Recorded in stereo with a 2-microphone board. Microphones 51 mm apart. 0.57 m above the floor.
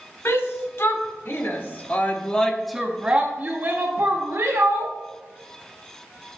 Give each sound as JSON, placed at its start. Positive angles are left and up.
{"t": 0.2, "sound": "a shout", "side_deg": 60, "distance_m": 1.6}